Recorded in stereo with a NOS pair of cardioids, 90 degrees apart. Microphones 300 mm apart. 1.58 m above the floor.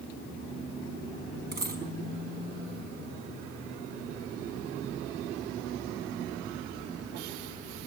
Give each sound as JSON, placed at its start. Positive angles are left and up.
{"t": 1.5, "sound": "a dropped coin", "azimuth_deg": -30, "distance_m": 5.0}